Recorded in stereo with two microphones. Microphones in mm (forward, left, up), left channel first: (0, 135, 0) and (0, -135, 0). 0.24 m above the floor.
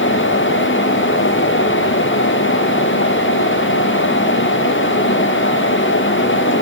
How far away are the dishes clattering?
No dishes clattering in this recording.